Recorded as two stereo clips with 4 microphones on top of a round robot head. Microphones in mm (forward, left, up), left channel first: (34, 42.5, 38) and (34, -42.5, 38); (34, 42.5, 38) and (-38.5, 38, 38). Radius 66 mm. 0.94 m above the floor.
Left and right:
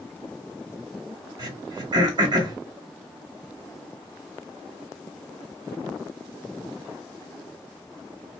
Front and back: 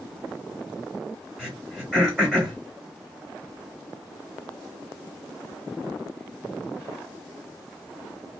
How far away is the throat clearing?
About 1.4 m.